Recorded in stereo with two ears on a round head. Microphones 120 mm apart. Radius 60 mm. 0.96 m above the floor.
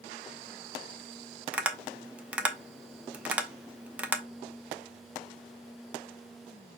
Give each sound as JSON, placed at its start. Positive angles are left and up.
{"t": 1.5, "sound": "tapping", "side_deg": -10, "distance_m": 0.6}